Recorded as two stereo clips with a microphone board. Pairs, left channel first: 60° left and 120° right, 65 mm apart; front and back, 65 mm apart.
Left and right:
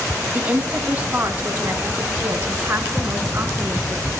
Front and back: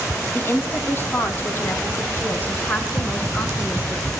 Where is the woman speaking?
50° right, 3 m; by 4.1 s 65° right, 5.5 m.